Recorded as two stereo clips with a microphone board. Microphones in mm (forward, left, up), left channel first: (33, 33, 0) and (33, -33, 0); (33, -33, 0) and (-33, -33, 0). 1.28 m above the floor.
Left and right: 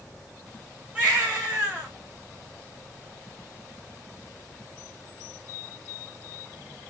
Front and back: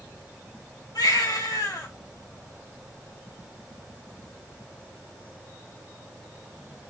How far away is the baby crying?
About 5.5 m.